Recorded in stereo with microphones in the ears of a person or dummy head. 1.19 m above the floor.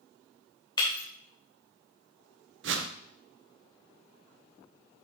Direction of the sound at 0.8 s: 25° left (ahead or behind).